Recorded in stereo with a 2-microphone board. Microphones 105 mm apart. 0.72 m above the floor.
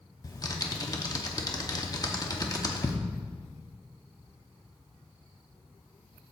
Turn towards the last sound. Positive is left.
turn(degrees=35)  # may be behind; listen again after turning